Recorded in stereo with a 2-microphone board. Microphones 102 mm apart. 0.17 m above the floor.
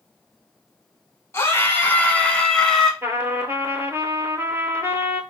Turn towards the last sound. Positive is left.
turn(degrees=-25)  # may be behind; listen again after turning